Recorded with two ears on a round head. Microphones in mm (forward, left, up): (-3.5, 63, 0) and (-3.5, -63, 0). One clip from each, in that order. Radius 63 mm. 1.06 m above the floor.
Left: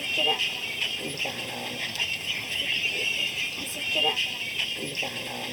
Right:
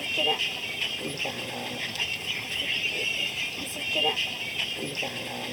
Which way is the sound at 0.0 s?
15° left (ahead or behind).